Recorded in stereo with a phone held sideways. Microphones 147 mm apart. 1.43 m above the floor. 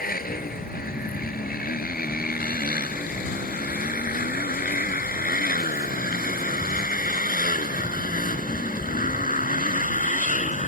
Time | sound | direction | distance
0.0 | a motorcycle | 80° left | ?